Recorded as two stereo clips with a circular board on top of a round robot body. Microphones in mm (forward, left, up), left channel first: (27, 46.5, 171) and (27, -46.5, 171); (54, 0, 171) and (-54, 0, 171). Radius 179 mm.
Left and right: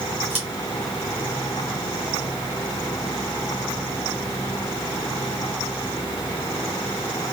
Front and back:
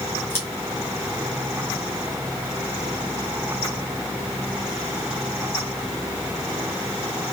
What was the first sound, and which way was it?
Scissors, 70° right.